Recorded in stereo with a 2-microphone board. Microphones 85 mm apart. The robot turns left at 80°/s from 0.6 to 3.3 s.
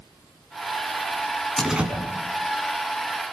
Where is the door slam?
5° left (ahead or behind), 4.5 m; by 1.9 s 25° right (ahead or behind), 4.5 m.